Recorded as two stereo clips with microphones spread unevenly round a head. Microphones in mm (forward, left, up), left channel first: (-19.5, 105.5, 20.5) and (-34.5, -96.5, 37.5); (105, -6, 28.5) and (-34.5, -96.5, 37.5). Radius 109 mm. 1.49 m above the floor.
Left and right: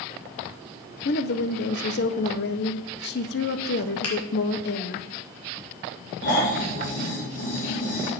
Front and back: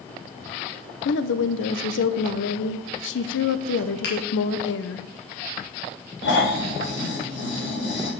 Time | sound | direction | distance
1.1 | a woman speaking | 40° left | 0.8 m
4.0 | a finger snap | 70° left | 3.5 m
6.2 | snoring | 50° left | 4 m